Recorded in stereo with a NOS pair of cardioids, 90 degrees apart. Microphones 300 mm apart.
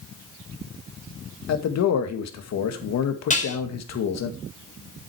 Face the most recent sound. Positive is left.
turn(degrees=25)